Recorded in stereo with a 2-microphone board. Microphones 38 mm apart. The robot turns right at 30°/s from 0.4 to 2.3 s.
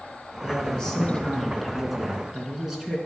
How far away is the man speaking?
About 2.5 m.